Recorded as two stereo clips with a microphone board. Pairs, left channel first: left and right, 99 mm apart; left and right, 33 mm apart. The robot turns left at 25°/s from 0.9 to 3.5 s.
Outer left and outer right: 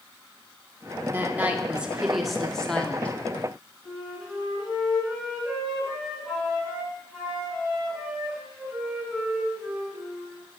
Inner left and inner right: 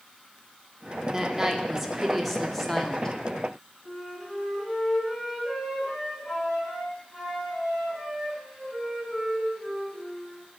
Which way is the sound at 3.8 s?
5° right (ahead or behind).